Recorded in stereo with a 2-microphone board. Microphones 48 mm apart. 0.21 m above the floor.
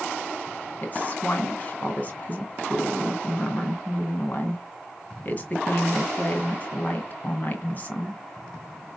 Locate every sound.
0.8 s a woman speaking: 35° left (ahead or behind), 1.9 m